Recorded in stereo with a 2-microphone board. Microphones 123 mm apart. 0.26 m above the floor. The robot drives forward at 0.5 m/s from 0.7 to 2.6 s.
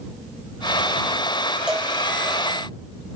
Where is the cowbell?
10° right (ahead or behind), 0.9 m.